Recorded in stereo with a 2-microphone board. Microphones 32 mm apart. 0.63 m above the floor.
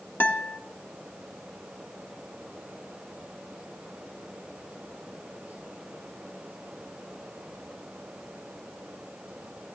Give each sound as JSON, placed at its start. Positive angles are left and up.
{"t": 0.2, "sound": "a guitar", "side_deg": 70, "distance_m": 1.1}